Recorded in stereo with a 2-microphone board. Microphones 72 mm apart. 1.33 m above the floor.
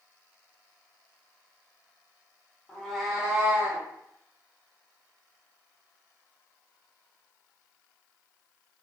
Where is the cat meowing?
15° left (ahead or behind), 0.7 m; by 3.9 s 30° right (ahead or behind), 0.8 m.